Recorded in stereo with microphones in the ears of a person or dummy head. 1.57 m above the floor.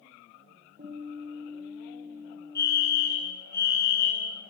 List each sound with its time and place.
0.8 s a guitar: 35° right (ahead or behind), 6.5 m
2.5 s a fire alarm: 15° left (ahead or behind), 6.5 m